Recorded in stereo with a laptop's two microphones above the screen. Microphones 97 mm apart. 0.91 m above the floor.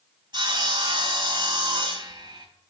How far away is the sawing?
About 3.5 m.